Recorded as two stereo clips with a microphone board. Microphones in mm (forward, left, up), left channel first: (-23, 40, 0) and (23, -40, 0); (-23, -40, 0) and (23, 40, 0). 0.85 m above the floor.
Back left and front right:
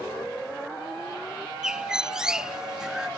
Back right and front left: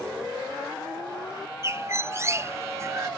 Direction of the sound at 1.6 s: 20° left.